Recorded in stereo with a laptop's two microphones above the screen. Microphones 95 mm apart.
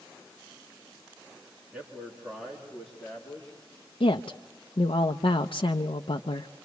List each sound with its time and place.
1.7 s a man speaking: 15° right (ahead or behind), 2.5 m; by 3.5 s 25° left (ahead or behind), 3 m
4.0 s a woman speaking: 75° left (ahead or behind), 0.6 m